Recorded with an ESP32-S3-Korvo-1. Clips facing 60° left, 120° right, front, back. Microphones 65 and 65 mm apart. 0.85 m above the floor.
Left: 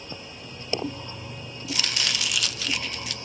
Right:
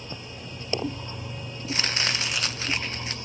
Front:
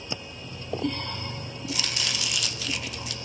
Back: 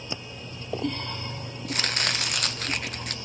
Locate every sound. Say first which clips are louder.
1.7 s chopping: right 2 dB, back 4 dB; 165° right, 0.7 m